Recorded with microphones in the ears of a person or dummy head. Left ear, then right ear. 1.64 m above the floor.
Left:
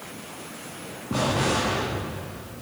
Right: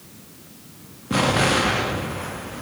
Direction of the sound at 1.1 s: 30° right (ahead or behind).